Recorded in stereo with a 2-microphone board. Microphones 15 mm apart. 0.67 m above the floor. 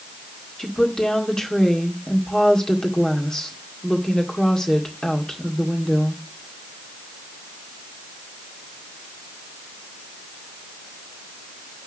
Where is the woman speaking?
50° left (ahead or behind), 1.8 m.